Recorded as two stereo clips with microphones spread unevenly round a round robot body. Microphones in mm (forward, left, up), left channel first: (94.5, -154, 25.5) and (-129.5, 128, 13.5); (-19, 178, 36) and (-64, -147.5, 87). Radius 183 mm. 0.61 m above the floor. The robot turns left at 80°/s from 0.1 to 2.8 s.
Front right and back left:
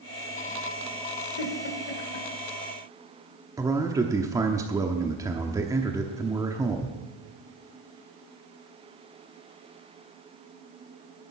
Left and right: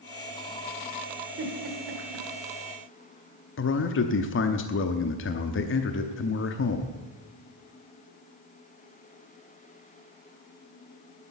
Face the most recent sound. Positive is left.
turn(degrees=50)